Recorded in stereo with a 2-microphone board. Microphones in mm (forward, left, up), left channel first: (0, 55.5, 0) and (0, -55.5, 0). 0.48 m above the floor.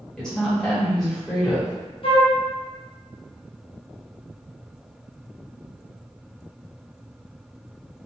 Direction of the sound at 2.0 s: 50° left (ahead or behind).